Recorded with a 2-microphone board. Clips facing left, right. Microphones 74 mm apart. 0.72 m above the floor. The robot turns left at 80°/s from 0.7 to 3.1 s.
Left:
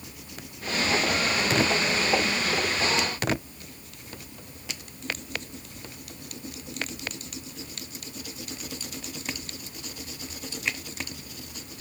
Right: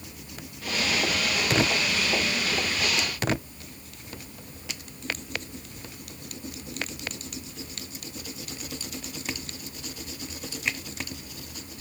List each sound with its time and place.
Only background noise.